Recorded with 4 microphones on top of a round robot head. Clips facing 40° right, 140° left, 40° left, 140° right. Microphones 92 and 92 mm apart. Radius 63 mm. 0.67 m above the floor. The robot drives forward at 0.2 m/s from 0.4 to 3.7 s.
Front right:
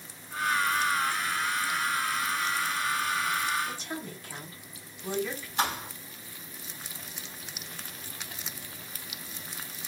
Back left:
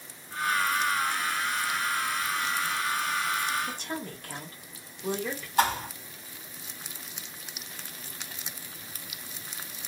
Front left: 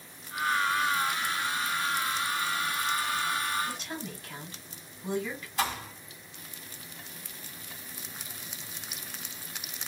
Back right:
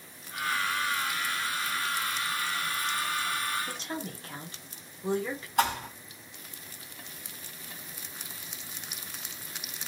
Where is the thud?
170° right, 2 m.